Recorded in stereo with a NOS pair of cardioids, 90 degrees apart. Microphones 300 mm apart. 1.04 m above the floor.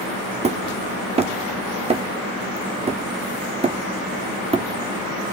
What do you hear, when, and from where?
0.4 s hammering: 20° right, 1.1 m